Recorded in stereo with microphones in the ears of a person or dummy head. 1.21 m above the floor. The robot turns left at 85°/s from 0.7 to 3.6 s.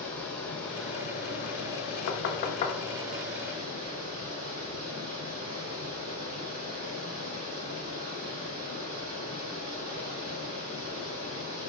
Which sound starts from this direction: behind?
Running water, at 0.0 s.